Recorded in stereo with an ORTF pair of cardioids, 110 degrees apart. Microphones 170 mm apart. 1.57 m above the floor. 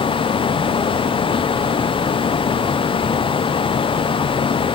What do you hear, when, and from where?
0.0 s a fan: 30° left, 0.8 m